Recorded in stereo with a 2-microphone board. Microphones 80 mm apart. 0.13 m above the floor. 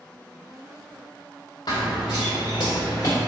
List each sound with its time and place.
1.7 s running footsteps: 60° left (ahead or behind), 1.0 m; by 3.2 s 45° left (ahead or behind), 0.8 m